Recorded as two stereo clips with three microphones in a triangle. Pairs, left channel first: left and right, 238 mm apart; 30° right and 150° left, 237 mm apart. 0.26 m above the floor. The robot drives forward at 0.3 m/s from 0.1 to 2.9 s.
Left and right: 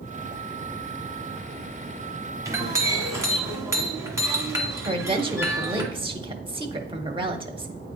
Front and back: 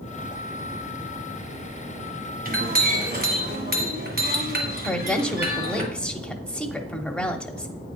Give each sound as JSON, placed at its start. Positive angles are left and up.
{"t": 2.5, "sound": "a clink", "azimuth_deg": -165, "distance_m": 1.5}
{"t": 4.8, "sound": "a woman speaking", "azimuth_deg": -110, "distance_m": 0.9}